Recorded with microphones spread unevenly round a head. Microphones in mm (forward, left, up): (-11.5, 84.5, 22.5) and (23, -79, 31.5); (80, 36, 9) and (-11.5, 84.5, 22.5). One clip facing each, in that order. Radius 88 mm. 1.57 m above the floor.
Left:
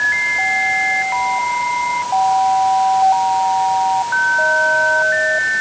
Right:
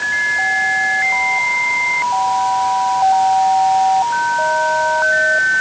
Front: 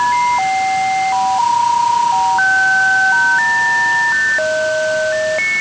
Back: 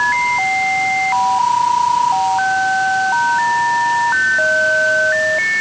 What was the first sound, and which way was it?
Only background noise.